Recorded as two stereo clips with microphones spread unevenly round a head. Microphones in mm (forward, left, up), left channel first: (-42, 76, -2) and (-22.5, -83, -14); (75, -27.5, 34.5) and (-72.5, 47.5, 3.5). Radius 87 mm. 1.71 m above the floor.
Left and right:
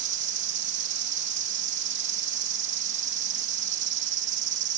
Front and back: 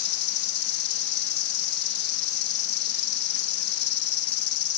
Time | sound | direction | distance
0.0 | an insect | 55° right | ?